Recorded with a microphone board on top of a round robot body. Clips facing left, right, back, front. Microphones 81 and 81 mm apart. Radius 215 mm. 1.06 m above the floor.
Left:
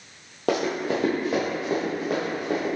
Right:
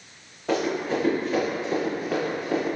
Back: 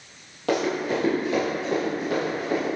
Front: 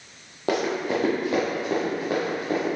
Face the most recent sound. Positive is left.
turn(degrees=50)